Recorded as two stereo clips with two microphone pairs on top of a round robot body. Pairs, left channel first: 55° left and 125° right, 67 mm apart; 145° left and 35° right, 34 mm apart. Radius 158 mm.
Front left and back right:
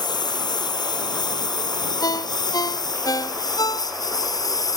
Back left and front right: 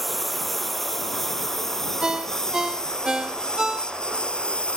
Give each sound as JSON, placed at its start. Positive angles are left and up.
{"t": 0.0, "sound": "a lawn mower", "azimuth_deg": 55}
{"t": 2.0, "sound": "a ringtone", "azimuth_deg": 35}